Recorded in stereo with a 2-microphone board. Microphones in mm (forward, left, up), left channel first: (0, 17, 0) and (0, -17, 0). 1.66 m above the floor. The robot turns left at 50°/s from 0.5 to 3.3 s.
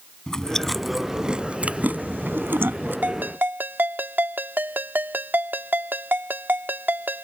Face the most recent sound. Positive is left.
turn(degrees=-70)  # may be behind; listen again after turning